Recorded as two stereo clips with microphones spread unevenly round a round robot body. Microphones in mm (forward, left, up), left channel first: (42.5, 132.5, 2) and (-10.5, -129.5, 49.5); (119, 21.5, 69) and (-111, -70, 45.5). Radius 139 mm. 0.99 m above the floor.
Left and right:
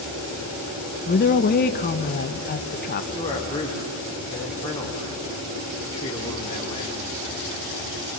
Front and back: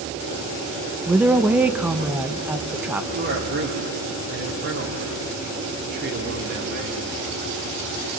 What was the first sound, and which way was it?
A woman speaking, 120° left.